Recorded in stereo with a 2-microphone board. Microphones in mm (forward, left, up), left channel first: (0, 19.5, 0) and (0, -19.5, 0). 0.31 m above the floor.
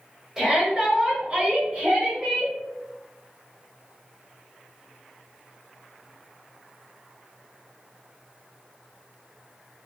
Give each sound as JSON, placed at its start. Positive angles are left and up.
{"t": 0.4, "sound": "a shout", "side_deg": -15, "distance_m": 1.1}